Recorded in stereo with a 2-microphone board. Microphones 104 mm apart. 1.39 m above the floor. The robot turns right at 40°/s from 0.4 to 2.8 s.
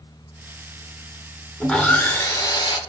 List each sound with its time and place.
1.6 s sawing: 5° left, 0.7 m; by 2.8 s 55° left, 0.7 m